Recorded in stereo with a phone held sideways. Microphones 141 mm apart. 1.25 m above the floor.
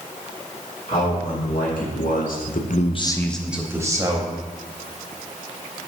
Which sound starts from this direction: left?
A man speaking, at 0.9 s.